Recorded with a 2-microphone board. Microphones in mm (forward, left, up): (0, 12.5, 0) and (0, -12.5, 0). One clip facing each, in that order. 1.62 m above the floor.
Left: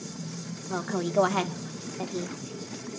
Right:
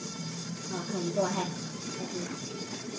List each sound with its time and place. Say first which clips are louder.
0.7 s a woman speaking: left 5 dB; 80° left, 1.9 m; by 2.9 s 65° left (ahead or behind), 1.9 m